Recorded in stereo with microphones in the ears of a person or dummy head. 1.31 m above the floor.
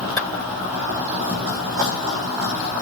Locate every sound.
0.2 s a clap: 10° left (ahead or behind), 5.5 m